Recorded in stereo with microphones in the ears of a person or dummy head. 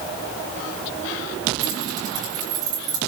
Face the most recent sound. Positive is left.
turn(degrees=-25)  # may be behind; listen again after turning